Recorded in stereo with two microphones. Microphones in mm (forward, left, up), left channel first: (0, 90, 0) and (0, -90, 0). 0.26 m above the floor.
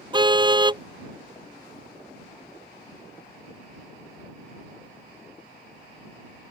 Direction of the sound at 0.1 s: 25° right (ahead or behind).